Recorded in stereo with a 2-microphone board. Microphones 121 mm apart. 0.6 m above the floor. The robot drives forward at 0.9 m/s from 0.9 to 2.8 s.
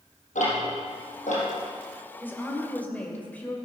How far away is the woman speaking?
About 2.0 m.